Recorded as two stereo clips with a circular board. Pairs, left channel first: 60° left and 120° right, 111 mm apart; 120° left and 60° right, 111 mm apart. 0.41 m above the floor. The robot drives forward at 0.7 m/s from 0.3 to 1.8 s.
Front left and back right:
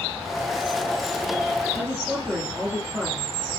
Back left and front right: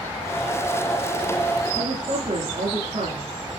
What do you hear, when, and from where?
1.8 s a woman speaking: 35° right, 7.5 m